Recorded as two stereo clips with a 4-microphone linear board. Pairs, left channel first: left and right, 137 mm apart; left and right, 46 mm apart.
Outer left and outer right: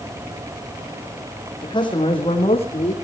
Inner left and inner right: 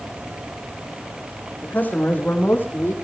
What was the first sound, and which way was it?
A man speaking, 30° left (ahead or behind).